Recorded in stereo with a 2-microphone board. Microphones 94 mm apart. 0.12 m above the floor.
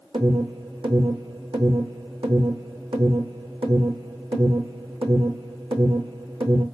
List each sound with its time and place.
0.1 s an alarm: 70° right (ahead or behind), 4 m